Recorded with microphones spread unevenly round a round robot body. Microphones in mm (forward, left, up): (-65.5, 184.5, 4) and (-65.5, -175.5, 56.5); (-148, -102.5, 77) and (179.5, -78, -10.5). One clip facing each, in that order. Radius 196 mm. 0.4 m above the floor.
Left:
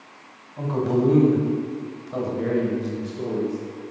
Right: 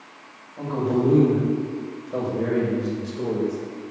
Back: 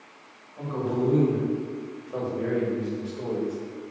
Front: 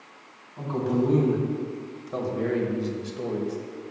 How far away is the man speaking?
About 2 m.